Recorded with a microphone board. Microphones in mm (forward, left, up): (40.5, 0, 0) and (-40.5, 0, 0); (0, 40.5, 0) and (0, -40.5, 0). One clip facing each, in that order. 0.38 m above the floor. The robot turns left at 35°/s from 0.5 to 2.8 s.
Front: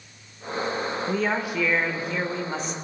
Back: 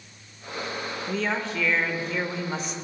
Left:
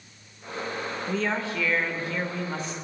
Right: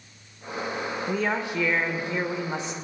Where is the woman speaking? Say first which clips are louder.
Front 1 dB, right 1 dB; 40° right, 0.8 m; by 2.7 s 100° right, 0.8 m.